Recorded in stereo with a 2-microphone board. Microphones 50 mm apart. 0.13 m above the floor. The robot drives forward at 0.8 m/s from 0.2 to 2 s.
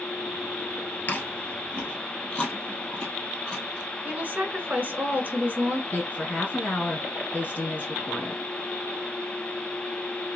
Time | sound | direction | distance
1.1 | chewing | 40° left (ahead or behind) | 1.0 m
4.0 | a woman speaking | 35° right (ahead or behind) | 1.2 m
5.9 | a woman speaking | 35° left (ahead or behind) | 2 m